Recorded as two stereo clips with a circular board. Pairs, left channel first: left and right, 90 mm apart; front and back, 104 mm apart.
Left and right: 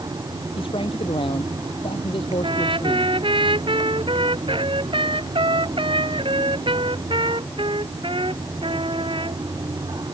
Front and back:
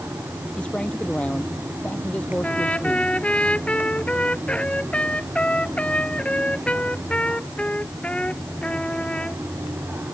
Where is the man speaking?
80° left; by 3.1 s 75° left.